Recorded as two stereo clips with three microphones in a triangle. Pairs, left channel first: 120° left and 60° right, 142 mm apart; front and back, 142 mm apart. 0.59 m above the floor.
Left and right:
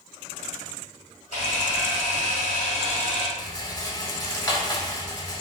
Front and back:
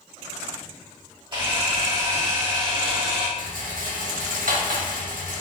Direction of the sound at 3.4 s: 175° right.